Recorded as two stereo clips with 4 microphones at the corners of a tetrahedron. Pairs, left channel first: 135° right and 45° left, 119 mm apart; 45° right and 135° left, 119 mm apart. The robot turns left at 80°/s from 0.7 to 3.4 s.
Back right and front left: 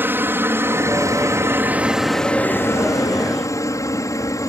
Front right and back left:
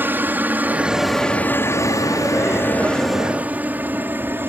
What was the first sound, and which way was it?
A helicopter, 90° left.